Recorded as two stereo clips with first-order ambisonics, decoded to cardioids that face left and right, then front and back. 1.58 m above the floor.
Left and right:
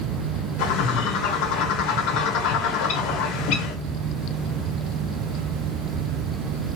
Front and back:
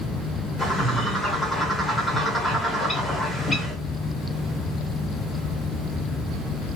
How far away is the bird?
About 1.3 m.